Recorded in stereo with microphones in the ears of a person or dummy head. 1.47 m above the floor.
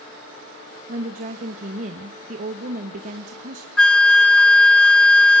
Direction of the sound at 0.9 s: 40° right (ahead or behind).